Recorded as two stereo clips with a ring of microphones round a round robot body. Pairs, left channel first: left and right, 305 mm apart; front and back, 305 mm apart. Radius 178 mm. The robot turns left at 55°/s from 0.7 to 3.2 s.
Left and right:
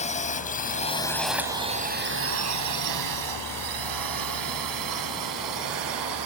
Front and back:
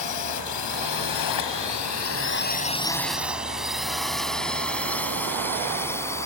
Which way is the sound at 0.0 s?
25° left.